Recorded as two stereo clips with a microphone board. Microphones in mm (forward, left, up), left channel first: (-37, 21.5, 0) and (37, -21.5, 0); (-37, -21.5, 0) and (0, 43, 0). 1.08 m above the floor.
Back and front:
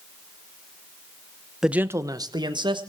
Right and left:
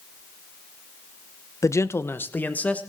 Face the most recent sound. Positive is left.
turn(degrees=-50)